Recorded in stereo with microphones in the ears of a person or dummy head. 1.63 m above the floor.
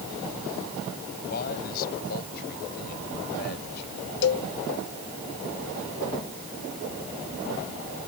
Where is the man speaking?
55° left (ahead or behind); by 3.8 s 60° left (ahead or behind).